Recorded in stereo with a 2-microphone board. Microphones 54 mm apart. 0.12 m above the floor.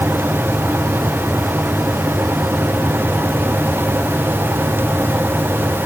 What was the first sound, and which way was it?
Only background noise.